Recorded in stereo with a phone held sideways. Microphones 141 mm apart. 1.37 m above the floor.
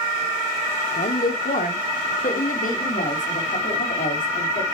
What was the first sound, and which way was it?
A woman speaking, 90° left.